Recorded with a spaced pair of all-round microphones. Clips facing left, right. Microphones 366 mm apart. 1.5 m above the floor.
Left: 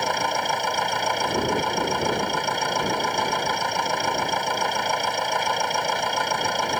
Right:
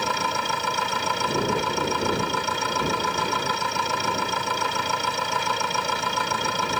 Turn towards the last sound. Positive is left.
turn(degrees=-15)  # may be behind; listen again after turning